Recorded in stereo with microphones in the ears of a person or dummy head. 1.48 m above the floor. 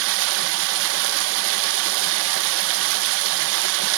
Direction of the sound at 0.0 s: 70° right (ahead or behind).